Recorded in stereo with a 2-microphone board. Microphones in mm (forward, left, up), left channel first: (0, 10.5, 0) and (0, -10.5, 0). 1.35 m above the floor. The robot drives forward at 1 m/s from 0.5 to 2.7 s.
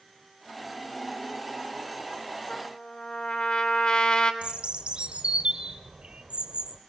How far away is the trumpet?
About 2.5 m.